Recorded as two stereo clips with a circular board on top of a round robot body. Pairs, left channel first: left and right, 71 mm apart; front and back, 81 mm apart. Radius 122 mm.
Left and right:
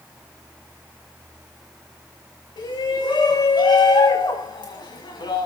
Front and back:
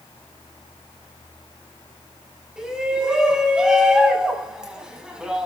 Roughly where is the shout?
Left.